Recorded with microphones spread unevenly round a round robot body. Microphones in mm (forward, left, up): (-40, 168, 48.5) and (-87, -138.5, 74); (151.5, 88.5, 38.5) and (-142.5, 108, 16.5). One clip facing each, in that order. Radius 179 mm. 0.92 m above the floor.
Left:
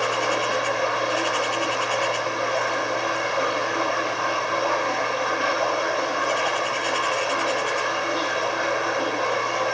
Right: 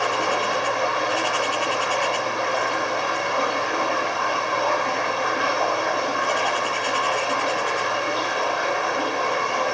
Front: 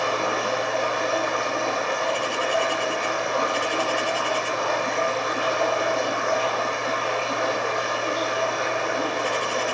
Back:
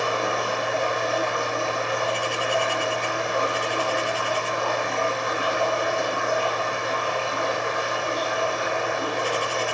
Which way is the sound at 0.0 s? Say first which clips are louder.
Even, even; 55° right.